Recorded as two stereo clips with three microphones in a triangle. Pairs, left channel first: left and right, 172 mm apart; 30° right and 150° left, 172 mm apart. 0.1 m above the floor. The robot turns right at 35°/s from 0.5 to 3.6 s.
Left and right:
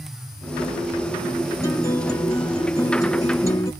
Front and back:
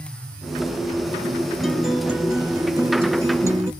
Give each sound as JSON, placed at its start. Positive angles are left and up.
{"t": 1.6, "sound": "a guitar", "azimuth_deg": 60, "distance_m": 1.5}